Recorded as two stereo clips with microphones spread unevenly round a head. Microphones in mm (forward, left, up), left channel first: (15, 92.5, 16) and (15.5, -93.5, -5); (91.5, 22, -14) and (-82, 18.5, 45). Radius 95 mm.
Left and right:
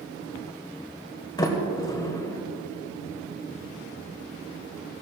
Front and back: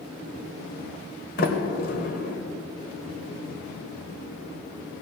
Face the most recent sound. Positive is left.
turn(degrees=40)